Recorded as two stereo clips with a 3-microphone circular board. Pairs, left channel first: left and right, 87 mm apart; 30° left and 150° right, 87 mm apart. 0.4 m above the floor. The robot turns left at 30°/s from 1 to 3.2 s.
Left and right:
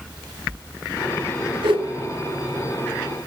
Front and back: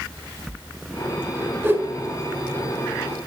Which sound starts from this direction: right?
A whoosh, at 1.6 s.